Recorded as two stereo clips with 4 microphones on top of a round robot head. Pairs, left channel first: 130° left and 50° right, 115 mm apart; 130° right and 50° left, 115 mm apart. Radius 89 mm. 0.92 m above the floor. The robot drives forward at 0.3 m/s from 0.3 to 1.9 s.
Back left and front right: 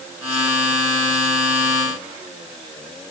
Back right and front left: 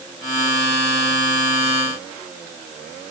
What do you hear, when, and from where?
Only background noise.